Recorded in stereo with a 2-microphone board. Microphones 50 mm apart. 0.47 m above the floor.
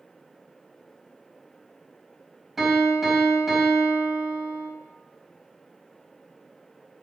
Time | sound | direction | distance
2.6 | a piano | 5° right (ahead or behind) | 3.5 m